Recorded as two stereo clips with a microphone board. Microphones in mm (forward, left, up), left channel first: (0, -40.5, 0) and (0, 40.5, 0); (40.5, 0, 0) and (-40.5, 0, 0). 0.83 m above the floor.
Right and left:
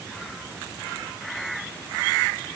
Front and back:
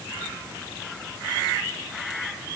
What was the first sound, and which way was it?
Only background noise.